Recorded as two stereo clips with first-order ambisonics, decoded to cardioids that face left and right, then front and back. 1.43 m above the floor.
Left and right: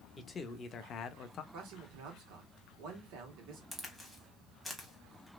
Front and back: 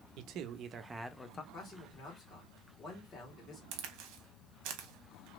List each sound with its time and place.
0.2 s a man speaking: 160° left, 0.7 m; by 1.4 s 55° left, 0.5 m
1.5 s a man speaking: 65° right, 1.9 m
3.7 s a crack: 175° left, 0.9 m